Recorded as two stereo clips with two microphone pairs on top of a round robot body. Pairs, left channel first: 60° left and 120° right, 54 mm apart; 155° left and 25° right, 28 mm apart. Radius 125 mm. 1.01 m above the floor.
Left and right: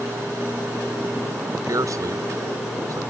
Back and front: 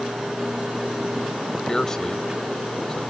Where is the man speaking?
135° right.